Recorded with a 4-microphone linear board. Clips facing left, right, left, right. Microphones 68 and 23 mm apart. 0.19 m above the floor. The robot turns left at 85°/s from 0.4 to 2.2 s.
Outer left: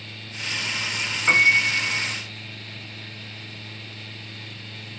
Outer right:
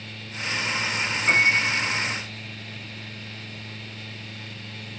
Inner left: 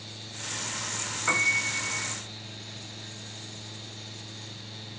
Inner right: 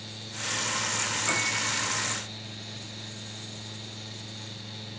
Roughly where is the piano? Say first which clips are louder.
Outer left 2 dB, inner left 6 dB; behind left.